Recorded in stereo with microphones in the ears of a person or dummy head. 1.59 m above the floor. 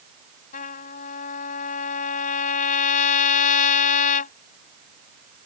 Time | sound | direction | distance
0.5 | a trumpet | 45° left (ahead or behind) | ?